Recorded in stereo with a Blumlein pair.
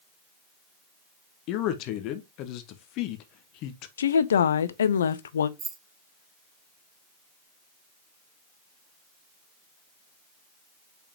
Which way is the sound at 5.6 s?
25° right.